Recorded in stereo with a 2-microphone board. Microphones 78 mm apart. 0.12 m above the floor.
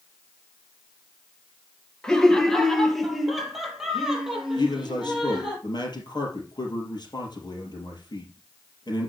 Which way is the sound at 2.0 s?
10° left (ahead or behind).